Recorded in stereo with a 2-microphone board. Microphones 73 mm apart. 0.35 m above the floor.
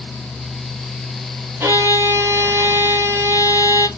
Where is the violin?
40° right (ahead or behind), 1.2 m.